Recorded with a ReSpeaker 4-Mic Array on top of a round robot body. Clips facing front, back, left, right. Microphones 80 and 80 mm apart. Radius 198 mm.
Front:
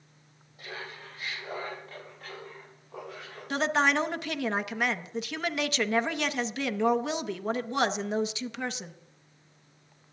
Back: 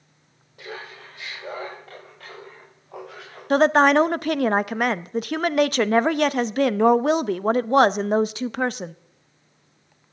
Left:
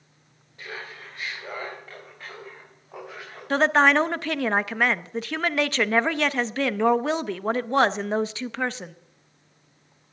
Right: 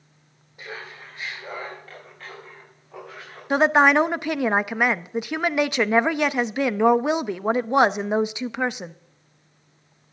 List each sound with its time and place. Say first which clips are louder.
0.6 s laughter: back 4 dB, even; 170° right, 4.5 m; by 3.4 s 165° left, 6.5 m
3.5 s a woman speaking: back 10 dB, right 2 dB; 165° right, 0.7 m